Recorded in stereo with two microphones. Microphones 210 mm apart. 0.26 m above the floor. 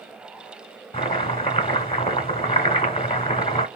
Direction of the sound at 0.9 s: 25° left (ahead or behind).